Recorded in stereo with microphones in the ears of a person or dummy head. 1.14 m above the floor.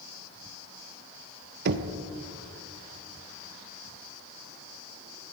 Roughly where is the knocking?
Right.